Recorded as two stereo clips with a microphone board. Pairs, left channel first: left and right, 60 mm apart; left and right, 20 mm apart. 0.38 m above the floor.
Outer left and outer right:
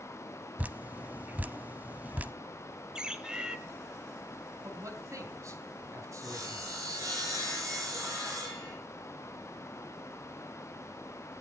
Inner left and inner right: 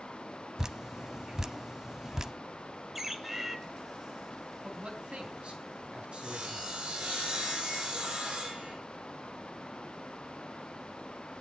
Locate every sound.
0.6 s dripping: 30° right (ahead or behind), 0.5 m
3.0 s a bird: 15° right (ahead or behind), 1.2 m
4.6 s a man speaking: 60° right (ahead or behind), 3 m
6.2 s sawing: 60° right (ahead or behind), 10 m